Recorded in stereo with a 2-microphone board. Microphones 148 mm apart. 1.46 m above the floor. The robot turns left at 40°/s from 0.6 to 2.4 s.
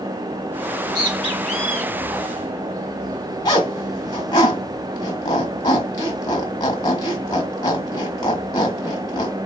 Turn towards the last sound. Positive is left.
turn(degrees=30)  # may be behind; listen again after turning